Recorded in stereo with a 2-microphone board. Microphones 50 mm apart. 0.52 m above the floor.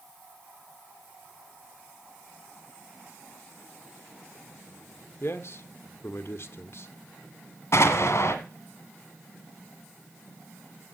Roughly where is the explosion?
Left.